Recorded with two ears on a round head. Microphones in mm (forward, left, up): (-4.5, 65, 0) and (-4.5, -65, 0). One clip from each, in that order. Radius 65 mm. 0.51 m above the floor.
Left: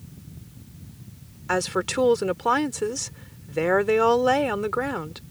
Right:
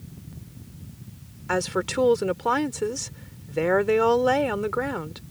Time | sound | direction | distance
1.5 | a woman speaking | 10° left (ahead or behind) | ?